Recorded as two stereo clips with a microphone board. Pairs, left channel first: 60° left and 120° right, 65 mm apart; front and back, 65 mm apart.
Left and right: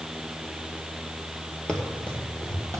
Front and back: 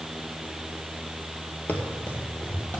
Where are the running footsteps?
Straight ahead, 1.8 m; by 2.8 s 40° left, 2.5 m.